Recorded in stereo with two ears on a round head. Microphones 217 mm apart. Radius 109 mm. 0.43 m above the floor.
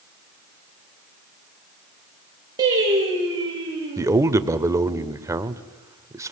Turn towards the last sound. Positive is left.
turn(degrees=-15)  # may be behind; listen again after turning